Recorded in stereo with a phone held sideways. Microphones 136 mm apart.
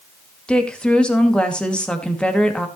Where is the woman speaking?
5° left (ahead or behind), 2.5 m.